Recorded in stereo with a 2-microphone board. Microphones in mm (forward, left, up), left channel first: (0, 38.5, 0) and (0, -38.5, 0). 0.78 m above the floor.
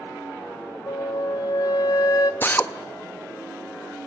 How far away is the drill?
About 0.9 m.